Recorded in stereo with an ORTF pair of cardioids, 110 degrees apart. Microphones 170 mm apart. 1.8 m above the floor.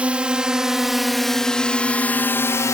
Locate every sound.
0.0 s a drone: 5° right; by 2.8 s 20° left